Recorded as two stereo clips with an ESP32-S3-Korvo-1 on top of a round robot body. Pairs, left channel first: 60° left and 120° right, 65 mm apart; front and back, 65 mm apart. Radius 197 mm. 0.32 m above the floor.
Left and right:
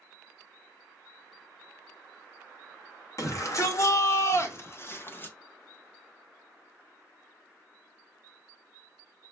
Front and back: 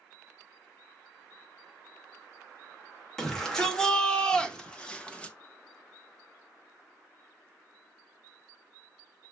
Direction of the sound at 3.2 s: 80° left.